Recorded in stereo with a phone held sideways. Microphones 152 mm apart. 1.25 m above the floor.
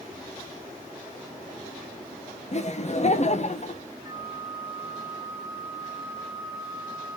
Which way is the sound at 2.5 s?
50° left (ahead or behind).